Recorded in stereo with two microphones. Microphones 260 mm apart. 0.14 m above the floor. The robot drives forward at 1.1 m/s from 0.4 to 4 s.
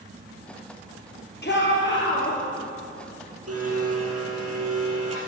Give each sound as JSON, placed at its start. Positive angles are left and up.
{"t": 1.4, "sound": "a shout", "side_deg": 45, "distance_m": 3.0}
{"t": 3.5, "sound": "a blender", "side_deg": -65, "distance_m": 3.5}